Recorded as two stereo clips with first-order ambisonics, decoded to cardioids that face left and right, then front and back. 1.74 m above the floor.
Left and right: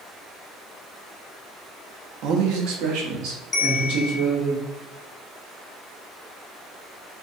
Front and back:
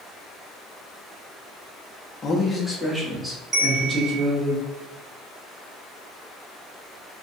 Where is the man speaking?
70° right, 0.6 m; by 4.5 s 110° right, 1.7 m.